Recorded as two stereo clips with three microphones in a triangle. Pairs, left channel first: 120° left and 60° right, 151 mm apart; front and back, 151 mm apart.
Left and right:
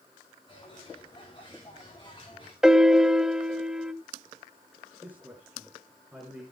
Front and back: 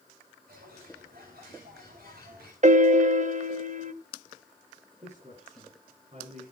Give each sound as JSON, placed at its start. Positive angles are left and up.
{"t": 0.5, "sound": "a bird", "azimuth_deg": 180, "distance_m": 6.0}
{"t": 2.6, "sound": "a piano", "azimuth_deg": -145, "distance_m": 0.6}
{"t": 5.0, "sound": "a man speaking", "azimuth_deg": -140, "distance_m": 5.0}